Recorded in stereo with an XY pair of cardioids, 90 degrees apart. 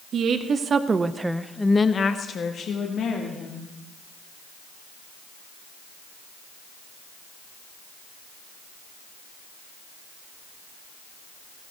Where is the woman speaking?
65° right, 1.5 m; by 3.7 s 75° left, 2.5 m.